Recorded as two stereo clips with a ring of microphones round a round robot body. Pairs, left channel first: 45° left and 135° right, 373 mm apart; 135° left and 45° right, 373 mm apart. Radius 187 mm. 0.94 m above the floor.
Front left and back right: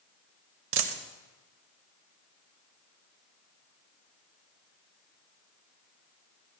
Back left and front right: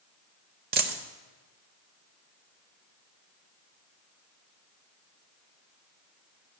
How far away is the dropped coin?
About 0.8 m.